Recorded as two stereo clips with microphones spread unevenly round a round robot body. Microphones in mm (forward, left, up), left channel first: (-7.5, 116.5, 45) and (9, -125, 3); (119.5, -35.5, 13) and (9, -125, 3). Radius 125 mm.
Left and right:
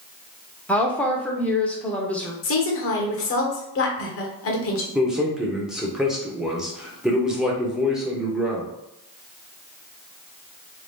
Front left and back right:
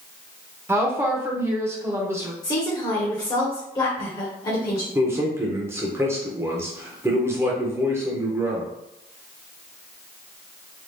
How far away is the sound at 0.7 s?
About 0.8 m.